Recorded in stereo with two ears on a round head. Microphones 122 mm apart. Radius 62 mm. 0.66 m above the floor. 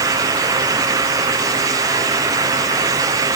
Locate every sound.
Only background noise.